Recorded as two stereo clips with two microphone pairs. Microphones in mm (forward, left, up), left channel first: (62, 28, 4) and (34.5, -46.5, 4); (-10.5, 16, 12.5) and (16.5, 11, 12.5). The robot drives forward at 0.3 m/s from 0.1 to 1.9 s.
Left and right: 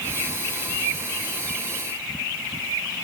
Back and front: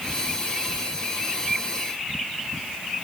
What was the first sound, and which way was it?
Only background noise.